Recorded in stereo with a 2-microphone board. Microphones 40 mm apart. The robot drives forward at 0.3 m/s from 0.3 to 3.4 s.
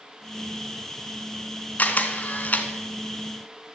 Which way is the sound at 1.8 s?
45° left (ahead or behind).